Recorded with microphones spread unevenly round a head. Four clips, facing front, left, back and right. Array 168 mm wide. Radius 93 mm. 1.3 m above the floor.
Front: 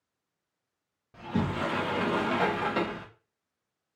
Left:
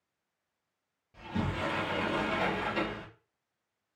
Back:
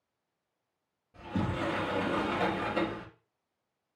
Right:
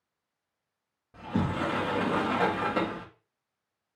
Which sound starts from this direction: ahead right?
A sliding door, at 1.1 s.